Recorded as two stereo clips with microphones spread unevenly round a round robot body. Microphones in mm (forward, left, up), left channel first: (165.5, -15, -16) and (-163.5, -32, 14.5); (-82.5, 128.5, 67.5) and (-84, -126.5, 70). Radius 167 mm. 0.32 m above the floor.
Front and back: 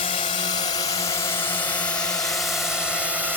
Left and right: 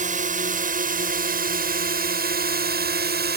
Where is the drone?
50° right; by 3.4 s 90° right.